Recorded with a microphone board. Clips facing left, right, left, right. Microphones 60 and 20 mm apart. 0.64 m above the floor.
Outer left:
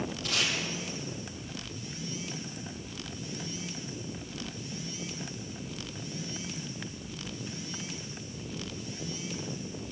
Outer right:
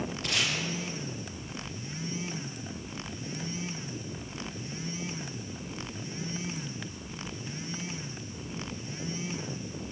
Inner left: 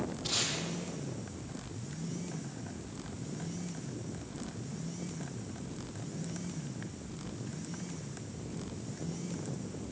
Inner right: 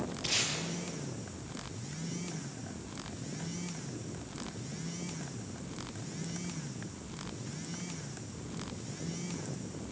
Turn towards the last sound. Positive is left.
turn(degrees=-70)  # may be behind; listen again after turning